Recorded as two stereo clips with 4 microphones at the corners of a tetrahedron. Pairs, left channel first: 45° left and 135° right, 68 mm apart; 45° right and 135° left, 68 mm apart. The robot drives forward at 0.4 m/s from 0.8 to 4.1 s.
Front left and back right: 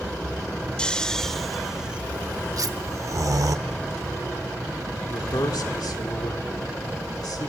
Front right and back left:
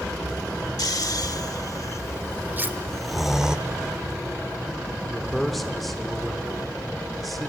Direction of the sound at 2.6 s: 160° right.